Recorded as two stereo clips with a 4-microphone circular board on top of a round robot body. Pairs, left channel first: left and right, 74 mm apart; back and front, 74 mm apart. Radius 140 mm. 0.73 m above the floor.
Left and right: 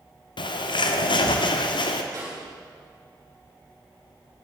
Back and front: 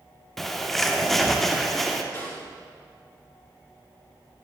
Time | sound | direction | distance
0.4 | a bird | 95° left | 1.1 m
2.1 | a snare drum | 125° right | 6.5 m